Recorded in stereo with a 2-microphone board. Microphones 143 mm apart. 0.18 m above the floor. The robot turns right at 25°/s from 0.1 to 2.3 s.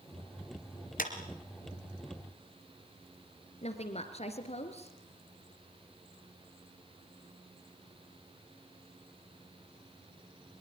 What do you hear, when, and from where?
1.0 s a clap: 65° left (ahead or behind), 2.5 m
3.6 s a woman speaking: 45° left (ahead or behind), 2.5 m